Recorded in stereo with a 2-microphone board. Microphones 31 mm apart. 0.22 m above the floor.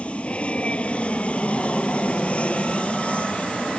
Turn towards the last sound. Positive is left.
turn(degrees=40)  # may be behind; listen again after turning